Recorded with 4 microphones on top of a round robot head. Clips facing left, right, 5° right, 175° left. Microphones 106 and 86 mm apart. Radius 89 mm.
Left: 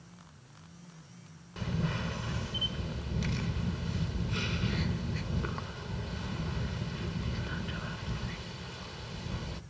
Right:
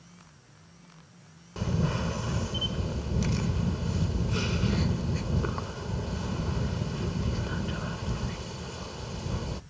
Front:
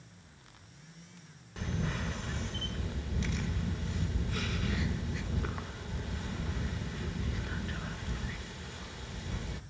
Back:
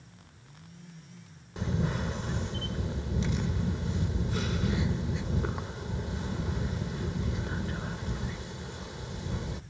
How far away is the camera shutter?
About 0.9 m.